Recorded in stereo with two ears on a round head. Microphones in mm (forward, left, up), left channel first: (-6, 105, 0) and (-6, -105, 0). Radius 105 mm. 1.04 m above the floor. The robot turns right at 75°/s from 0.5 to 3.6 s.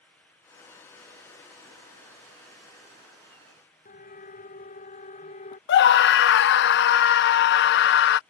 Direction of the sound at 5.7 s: 50° left (ahead or behind).